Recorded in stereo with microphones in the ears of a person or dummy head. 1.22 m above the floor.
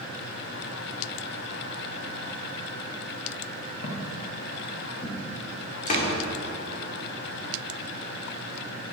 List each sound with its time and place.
3.8 s footsteps: 30° left (ahead or behind), 3 m; by 5.3 s 45° left (ahead or behind), 5 m
5.9 s a door slam: 45° left (ahead or behind), 2.5 m